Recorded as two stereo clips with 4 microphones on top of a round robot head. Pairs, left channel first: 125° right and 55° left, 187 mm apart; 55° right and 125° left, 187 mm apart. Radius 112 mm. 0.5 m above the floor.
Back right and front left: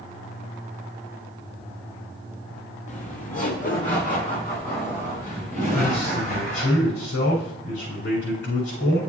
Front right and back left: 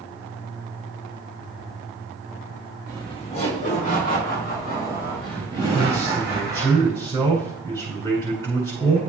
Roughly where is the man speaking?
Behind right.